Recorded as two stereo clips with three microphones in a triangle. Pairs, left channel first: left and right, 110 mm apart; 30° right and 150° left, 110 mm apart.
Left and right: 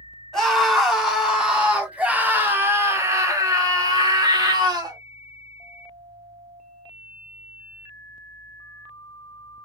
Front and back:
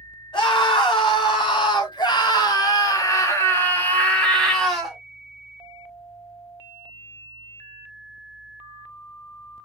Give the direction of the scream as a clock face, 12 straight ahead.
12 o'clock.